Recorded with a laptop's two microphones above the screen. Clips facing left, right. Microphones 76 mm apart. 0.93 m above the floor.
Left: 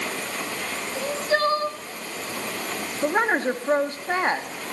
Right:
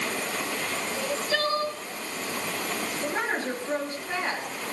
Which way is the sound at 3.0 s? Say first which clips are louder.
Left 9 dB; 45° left (ahead or behind).